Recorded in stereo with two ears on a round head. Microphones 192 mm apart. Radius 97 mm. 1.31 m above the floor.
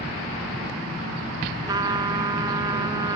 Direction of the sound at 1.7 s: 20° right (ahead or behind).